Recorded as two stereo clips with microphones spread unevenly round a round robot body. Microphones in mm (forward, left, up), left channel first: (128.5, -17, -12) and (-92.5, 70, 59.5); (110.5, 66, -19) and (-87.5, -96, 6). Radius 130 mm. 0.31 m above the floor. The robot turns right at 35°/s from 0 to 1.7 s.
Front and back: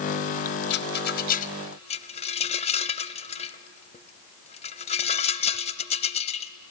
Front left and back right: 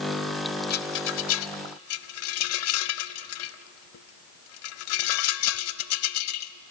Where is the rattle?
5° right, 0.7 m; by 6.7 s 30° left, 0.7 m.